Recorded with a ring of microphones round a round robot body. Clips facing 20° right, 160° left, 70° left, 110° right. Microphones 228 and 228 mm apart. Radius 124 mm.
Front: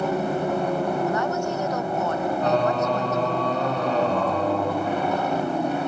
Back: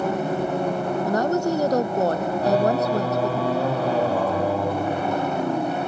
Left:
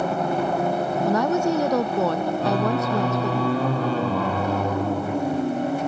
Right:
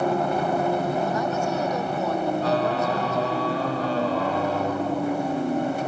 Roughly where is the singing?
Left.